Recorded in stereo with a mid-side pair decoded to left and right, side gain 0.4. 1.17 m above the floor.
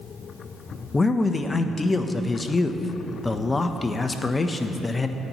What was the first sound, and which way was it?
A man speaking, 25° left.